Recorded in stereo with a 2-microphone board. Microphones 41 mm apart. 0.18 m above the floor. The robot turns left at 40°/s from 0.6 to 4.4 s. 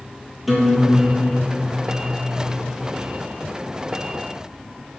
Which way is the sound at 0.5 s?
175° right.